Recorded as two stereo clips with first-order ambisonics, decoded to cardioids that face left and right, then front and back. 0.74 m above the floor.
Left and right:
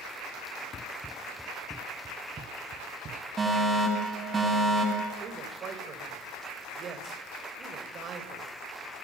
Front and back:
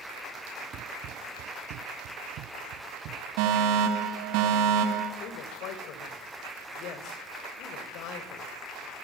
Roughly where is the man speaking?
Ahead right.